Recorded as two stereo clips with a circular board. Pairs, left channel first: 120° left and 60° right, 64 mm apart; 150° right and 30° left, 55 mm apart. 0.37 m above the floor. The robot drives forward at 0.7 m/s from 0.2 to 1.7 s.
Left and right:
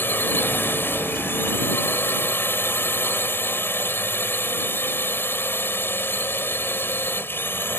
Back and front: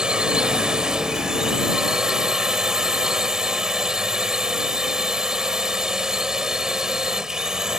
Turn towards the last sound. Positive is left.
turn(degrees=100)